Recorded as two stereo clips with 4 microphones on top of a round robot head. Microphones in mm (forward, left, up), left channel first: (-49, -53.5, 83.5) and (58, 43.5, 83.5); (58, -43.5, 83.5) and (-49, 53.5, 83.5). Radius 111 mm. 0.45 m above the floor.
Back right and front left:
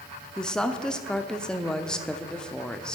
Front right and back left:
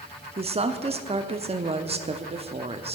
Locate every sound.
0.4 s a woman speaking: 140° left, 0.9 m